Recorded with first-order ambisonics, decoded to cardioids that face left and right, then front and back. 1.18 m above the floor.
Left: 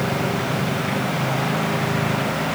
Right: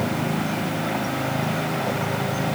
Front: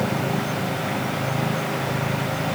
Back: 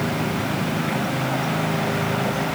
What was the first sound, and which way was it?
Only background noise.